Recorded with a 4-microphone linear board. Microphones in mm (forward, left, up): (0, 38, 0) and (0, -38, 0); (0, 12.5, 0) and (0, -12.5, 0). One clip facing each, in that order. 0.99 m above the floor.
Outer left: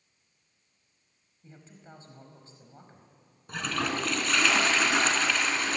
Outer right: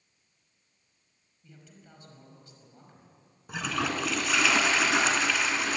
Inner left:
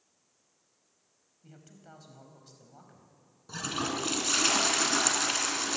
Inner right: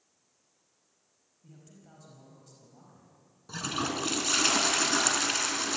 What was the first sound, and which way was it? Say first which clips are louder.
A man speaking: outer left 3 dB, inner left 2 dB; 30° left (ahead or behind).